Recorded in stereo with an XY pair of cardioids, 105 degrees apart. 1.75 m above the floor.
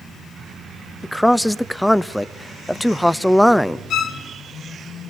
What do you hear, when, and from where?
1.0 s a man speaking: 5° left, 0.6 m
3.9 s a violin: 65° left, 1.5 m